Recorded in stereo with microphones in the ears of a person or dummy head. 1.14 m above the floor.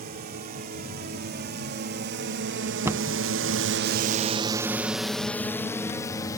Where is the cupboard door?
5° right (ahead or behind).